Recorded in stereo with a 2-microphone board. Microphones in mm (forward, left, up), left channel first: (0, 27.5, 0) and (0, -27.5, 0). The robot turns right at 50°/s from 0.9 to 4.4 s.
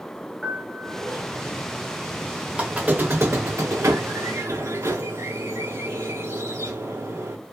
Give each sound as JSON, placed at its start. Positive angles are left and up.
{"t": 0.4, "sound": "a piano", "side_deg": 10, "distance_m": 0.6}
{"t": 2.5, "sound": "a squeak", "azimuth_deg": -165, "distance_m": 0.6}